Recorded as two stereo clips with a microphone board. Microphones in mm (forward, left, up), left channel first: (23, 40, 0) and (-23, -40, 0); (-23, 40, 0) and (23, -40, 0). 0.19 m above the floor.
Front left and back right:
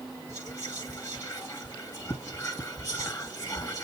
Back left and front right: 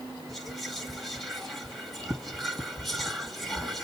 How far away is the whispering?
About 1.9 m.